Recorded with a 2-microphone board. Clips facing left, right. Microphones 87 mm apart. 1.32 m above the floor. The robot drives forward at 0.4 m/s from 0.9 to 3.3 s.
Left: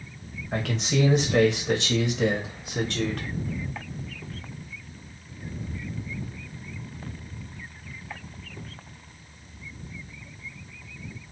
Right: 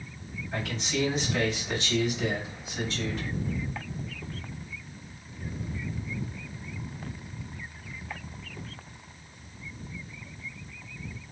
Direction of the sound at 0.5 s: 60° left (ahead or behind).